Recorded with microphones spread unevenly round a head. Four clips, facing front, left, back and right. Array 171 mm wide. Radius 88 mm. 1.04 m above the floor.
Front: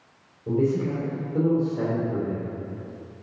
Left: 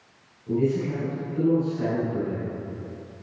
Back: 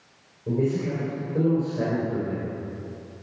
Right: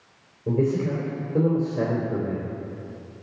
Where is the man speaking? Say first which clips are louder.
Right 1 dB, front 2 dB; 90° right, 3 m.